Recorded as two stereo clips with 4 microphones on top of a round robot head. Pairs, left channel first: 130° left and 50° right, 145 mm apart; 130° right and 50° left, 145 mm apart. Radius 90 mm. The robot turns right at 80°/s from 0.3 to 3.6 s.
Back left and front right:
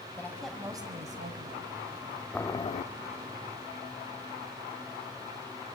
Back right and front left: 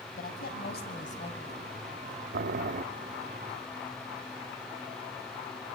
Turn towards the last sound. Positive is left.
turn(degrees=145)